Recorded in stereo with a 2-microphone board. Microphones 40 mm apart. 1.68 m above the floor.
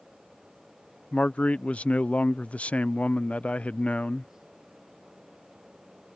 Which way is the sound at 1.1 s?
40° left (ahead or behind).